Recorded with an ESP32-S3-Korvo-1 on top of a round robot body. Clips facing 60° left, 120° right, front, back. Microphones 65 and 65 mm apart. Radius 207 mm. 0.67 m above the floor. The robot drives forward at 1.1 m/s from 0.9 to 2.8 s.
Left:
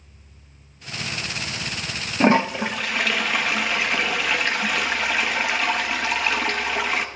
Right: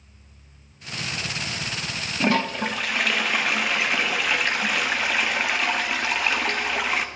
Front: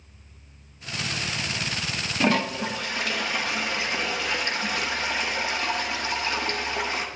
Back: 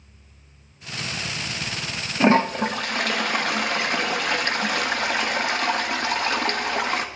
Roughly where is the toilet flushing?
Behind left.